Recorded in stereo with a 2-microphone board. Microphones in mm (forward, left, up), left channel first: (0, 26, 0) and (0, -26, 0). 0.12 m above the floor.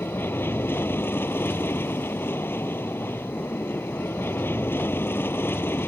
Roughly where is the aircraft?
Left.